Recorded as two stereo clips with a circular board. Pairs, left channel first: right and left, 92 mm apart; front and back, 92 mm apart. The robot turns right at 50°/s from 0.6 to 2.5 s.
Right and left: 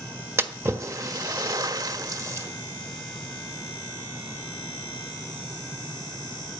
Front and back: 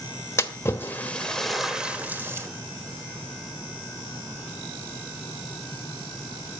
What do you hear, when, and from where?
0.4 s a splash: 45° left, 1.3 m; by 2.5 s 135° left, 1.3 m